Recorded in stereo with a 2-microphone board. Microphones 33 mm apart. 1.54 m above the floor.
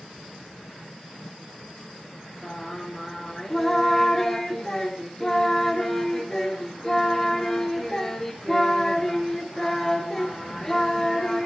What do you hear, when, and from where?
2.4 s singing: 15° left (ahead or behind), 4 m